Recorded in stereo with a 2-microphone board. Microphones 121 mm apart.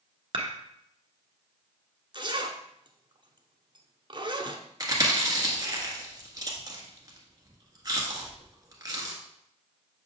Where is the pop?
I don't hear a pop.